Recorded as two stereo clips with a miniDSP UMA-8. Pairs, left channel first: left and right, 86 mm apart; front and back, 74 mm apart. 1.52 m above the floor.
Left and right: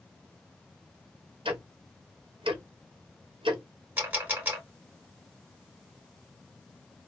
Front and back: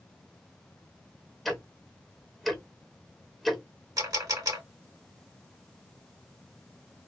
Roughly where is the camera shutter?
Behind right.